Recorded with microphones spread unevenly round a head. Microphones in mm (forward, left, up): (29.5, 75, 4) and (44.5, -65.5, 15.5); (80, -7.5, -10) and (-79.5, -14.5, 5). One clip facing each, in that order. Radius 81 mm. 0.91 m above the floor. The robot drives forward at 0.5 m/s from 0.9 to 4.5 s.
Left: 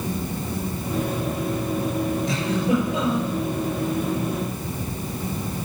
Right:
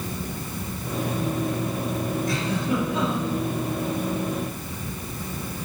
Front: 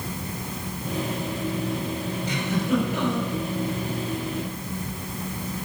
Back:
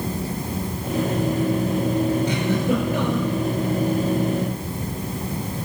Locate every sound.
2.3 s a giggle: 170° left, 6 m